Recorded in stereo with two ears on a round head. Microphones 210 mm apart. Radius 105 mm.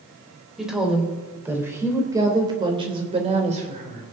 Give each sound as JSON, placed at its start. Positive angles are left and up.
{"t": 0.6, "sound": "a woman speaking", "side_deg": 0, "distance_m": 3.0}